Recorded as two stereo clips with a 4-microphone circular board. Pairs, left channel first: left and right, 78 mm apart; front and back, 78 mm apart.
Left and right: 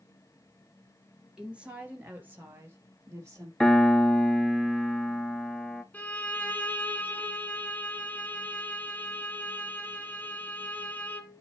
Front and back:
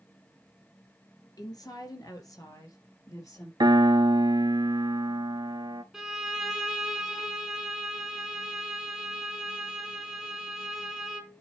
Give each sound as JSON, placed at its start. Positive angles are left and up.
{"t": 1.4, "sound": "a woman speaking", "azimuth_deg": -15, "distance_m": 2.0}
{"t": 3.6, "sound": "a piano", "azimuth_deg": 175, "distance_m": 0.6}
{"t": 5.9, "sound": "a violin", "azimuth_deg": 105, "distance_m": 1.0}